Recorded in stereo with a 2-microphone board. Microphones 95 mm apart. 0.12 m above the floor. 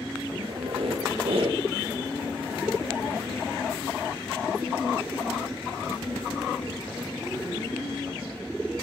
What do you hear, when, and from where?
0.4 s a squeak: 70° right (ahead or behind), 1.9 m